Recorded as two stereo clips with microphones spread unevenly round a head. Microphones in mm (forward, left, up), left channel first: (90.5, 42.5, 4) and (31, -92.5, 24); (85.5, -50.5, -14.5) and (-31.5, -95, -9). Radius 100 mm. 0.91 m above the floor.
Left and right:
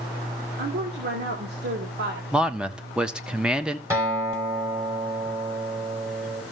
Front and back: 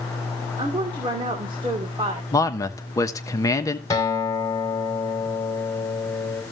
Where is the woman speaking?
110° right, 2.5 m.